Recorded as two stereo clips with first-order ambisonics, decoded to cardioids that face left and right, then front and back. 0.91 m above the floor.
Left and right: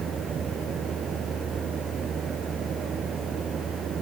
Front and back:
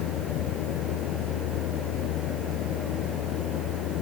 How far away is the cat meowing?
I don't hear a cat meowing.